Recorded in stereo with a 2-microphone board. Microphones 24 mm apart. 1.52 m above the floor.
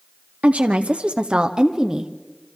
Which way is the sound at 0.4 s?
75° right (ahead or behind).